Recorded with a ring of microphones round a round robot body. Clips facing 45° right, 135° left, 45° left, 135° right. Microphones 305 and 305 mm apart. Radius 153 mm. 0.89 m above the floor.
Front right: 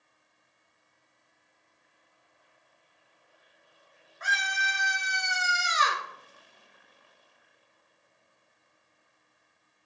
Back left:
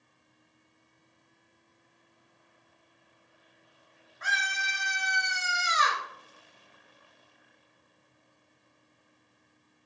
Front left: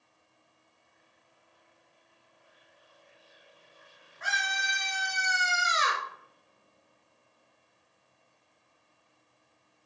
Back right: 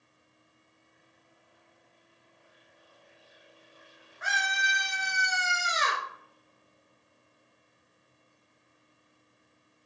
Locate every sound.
4.2 s a scream: 10° right, 1.6 m; by 6.0 s 40° right, 0.7 m